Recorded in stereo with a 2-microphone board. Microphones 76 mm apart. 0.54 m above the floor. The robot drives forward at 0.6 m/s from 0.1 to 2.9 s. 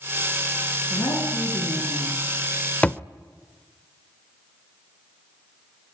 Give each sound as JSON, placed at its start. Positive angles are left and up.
{"t": 0.9, "sound": "a woman speaking", "side_deg": 50, "distance_m": 8.5}
{"t": 2.8, "sound": "a thud", "side_deg": 15, "distance_m": 0.6}